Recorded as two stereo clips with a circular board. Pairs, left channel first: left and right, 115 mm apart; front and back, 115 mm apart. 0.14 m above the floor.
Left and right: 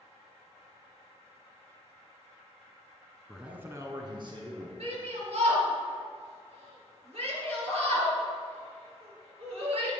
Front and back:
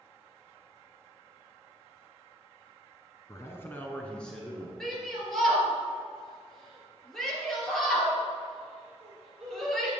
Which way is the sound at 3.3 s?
Straight ahead.